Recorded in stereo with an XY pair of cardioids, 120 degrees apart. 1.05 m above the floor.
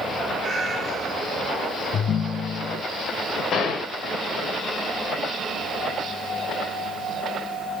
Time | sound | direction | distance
0.4 | a cat meowing | 25° right | 3 m
1.9 | a ringtone | 50° left | 0.6 m
3.5 | a gunshot | 50° left | 3.5 m